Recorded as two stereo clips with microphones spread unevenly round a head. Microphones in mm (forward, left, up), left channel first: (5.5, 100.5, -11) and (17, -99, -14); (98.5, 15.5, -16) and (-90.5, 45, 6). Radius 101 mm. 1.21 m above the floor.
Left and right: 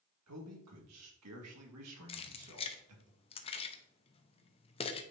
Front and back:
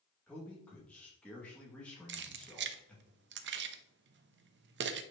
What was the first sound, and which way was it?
A man speaking, 90° right.